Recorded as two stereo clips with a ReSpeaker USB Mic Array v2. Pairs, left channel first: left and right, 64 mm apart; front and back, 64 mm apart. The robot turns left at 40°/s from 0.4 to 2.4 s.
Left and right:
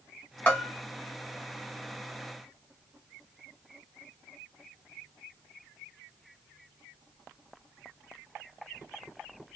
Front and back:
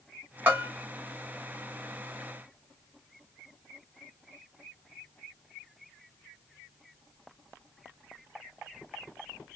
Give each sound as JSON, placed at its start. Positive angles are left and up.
{"t": 0.5, "sound": "a bell", "azimuth_deg": 140, "distance_m": 1.5}